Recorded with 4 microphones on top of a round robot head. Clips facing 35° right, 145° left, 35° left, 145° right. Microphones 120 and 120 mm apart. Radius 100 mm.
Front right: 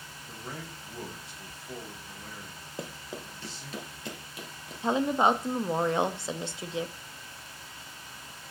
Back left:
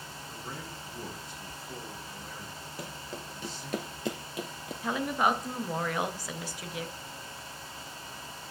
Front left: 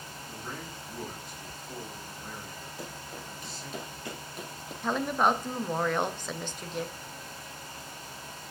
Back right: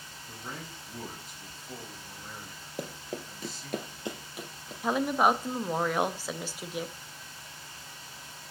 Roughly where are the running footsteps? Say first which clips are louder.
Front right 3 dB, back right 7 dB; right.